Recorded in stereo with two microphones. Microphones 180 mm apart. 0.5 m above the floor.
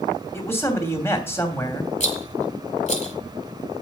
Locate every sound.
0.3 s a man speaking: 15° left (ahead or behind), 3 m
2.0 s a rattle: 40° left (ahead or behind), 2 m